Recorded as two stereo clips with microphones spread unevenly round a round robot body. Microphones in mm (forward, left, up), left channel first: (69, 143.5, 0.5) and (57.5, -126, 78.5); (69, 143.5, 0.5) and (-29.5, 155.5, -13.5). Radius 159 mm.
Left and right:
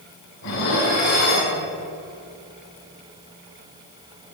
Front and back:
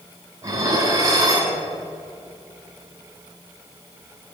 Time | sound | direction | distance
0.4 | dishes clattering | 115° left | 3 m